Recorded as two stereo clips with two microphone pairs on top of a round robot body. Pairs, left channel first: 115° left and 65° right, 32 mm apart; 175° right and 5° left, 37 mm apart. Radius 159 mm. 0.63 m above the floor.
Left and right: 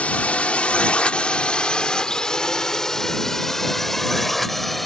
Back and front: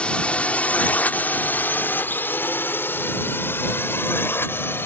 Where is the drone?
130° left; by 4.9 s 160° right.